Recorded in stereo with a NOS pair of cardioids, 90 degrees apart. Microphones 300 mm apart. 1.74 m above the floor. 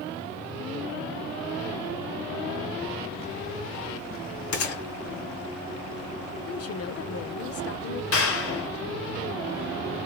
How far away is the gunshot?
About 2.0 m.